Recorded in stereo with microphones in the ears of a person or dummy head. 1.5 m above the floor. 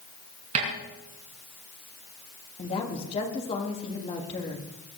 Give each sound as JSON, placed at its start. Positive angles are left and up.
{"t": 0.6, "sound": "a snare drum", "side_deg": -40, "distance_m": 5.0}
{"t": 2.6, "sound": "a woman speaking", "side_deg": 25, "distance_m": 3.0}